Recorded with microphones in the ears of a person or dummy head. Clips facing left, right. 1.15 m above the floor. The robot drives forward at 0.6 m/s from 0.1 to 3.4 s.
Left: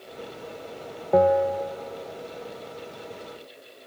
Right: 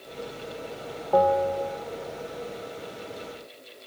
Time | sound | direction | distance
1.1 | a bell | 25° left (ahead or behind) | 0.5 m